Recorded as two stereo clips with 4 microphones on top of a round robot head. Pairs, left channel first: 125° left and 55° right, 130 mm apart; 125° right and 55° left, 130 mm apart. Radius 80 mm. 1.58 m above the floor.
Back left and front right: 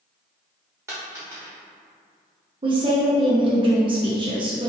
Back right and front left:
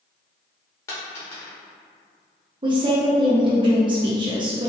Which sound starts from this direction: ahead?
A woman speaking, at 2.6 s.